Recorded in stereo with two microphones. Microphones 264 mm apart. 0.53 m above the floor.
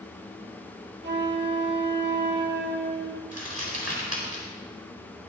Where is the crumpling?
70° right (ahead or behind), 4.5 m.